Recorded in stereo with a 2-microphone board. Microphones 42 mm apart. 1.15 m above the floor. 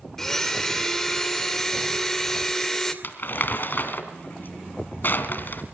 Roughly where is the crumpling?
Left.